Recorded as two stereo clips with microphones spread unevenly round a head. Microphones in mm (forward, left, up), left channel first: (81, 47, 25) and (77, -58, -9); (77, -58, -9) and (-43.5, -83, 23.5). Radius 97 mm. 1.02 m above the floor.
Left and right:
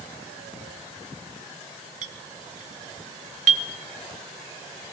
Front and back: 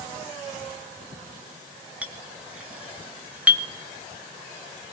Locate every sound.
2.0 s a clink: 90° right, 0.8 m